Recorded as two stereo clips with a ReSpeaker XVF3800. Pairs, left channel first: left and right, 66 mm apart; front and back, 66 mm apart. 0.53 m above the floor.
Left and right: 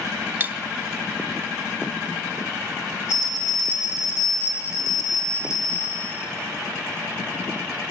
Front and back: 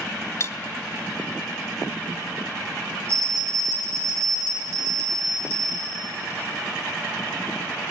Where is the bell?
130° left, 5 m.